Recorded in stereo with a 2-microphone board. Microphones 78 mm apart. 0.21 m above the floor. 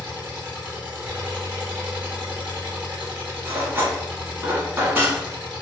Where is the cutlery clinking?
25° right (ahead or behind), 1.0 m.